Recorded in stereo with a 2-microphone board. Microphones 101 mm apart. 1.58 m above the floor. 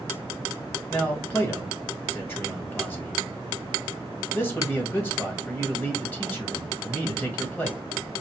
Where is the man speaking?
20° left (ahead or behind), 1.7 m.